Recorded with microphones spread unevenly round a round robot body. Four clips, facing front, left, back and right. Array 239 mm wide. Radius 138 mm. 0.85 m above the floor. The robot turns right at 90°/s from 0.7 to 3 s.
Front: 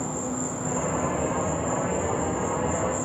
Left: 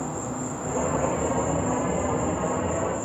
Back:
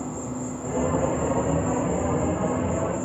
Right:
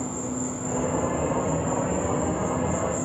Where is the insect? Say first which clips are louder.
Right 1 dB, front 1 dB; 60° left, 5 m; by 3.1 s 90° right, 5 m.